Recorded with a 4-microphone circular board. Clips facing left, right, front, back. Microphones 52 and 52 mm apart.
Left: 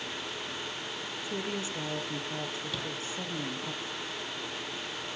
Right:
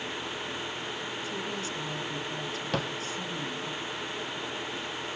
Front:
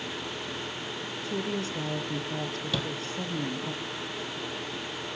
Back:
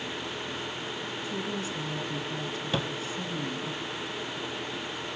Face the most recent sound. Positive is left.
turn(degrees=-120)